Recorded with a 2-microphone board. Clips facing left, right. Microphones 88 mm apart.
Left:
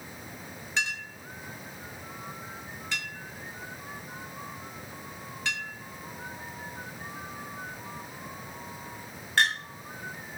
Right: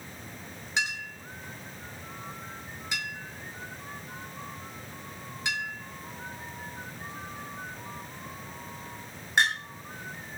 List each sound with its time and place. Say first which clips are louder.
0.8 s a clink: right 1 dB; 15° right (ahead or behind), 1.2 m